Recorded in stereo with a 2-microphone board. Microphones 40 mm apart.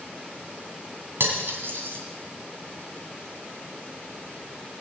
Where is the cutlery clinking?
75° right (ahead or behind), 2.5 m.